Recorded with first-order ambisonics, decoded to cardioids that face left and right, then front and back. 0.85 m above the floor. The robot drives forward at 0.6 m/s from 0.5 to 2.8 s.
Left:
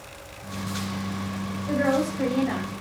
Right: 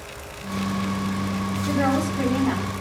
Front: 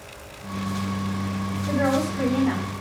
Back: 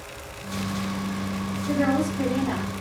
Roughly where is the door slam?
No door slam in this recording.